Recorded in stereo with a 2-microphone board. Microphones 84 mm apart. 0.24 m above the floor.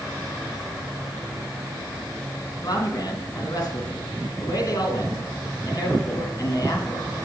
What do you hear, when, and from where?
2.6 s a man speaking: 50° left (ahead or behind), 2.5 m